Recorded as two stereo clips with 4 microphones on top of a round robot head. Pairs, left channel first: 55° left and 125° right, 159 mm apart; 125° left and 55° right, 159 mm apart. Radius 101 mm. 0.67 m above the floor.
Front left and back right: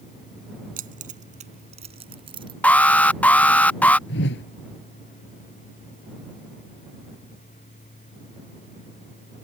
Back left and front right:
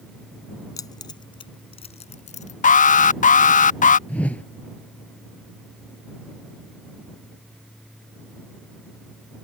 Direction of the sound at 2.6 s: 135° left.